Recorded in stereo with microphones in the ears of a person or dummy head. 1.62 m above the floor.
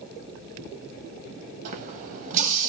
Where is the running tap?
40° right (ahead or behind), 1.5 m.